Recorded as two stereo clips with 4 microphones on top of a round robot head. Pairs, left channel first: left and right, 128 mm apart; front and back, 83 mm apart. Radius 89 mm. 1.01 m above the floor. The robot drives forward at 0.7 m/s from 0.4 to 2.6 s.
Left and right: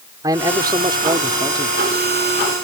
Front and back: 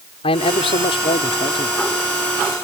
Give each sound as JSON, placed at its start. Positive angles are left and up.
{"t": 0.2, "sound": "a man speaking", "azimuth_deg": -20}